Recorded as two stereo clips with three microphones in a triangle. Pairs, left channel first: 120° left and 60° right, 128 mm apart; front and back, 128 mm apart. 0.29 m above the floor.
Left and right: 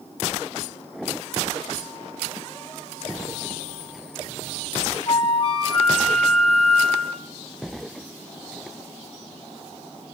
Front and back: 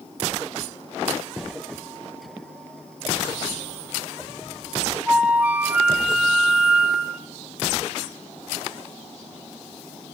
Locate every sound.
5.1 s a flute: 105° left, 1.3 m